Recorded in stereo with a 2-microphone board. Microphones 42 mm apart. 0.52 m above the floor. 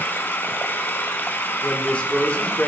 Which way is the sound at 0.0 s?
65° left (ahead or behind).